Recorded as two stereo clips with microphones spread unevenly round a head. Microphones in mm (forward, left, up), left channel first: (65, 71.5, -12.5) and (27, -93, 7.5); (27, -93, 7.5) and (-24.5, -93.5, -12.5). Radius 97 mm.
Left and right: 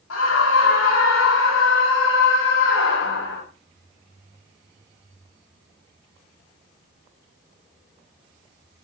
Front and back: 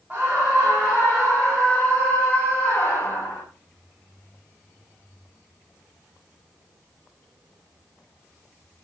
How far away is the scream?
About 5.5 m.